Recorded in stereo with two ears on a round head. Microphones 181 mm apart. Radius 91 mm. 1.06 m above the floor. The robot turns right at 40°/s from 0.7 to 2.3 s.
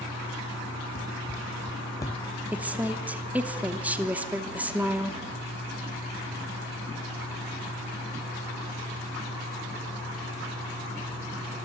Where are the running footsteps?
40° left (ahead or behind), 2 m; by 2.4 s 15° right (ahead or behind), 1.1 m.